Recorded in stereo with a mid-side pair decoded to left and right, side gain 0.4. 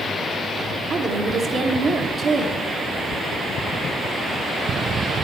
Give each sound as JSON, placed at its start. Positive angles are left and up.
{"t": 0.9, "sound": "a woman speaking", "azimuth_deg": -60, "distance_m": 1.3}